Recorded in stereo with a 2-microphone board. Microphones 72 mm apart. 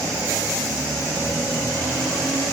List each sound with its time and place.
Only background noise.